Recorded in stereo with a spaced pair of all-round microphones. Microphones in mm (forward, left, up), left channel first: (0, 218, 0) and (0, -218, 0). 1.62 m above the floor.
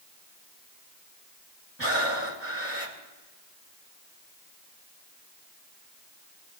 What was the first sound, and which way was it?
Breathing, 30° right (ahead or behind).